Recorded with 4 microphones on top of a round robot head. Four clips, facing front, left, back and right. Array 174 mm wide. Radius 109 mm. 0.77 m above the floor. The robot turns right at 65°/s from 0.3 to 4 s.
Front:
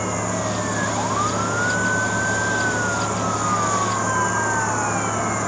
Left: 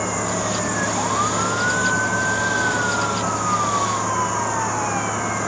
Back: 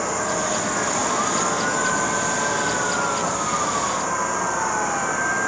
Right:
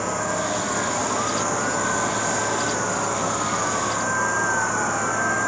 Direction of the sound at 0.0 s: 135° left.